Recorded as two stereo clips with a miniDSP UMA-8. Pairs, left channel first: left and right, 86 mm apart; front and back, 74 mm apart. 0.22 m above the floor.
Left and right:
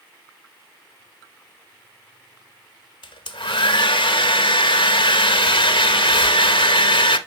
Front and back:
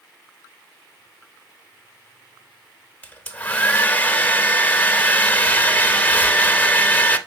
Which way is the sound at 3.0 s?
70° left.